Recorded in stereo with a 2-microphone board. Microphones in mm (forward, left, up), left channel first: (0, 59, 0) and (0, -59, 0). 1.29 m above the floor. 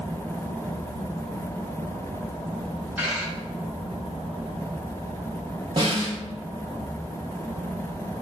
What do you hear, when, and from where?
3.0 s a dropped coin: 15° right (ahead or behind), 1.6 m
5.8 s a snare drum: 40° right (ahead or behind), 1.1 m